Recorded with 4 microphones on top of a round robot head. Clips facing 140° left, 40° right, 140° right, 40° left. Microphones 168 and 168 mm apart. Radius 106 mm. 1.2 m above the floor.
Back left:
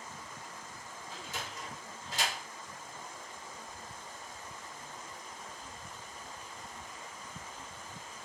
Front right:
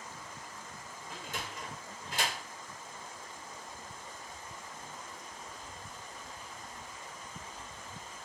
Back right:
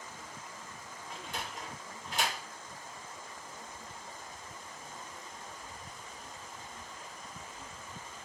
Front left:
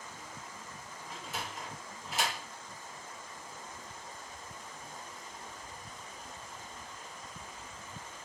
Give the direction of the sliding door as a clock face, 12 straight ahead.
2 o'clock.